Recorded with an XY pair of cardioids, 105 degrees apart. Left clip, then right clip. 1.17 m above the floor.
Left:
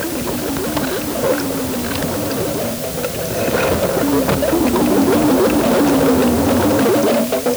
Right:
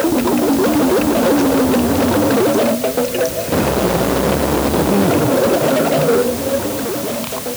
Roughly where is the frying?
No frying in this recording.